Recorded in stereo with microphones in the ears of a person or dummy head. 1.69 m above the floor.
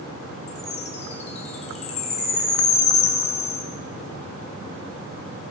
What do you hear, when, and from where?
0.5 s a chime: 35° left (ahead or behind), 2 m